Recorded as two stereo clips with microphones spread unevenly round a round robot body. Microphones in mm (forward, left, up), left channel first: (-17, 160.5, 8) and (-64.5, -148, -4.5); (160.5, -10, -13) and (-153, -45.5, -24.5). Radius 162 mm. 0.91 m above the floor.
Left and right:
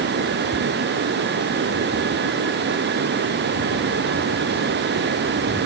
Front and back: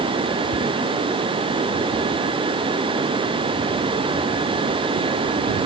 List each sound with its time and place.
Only background noise.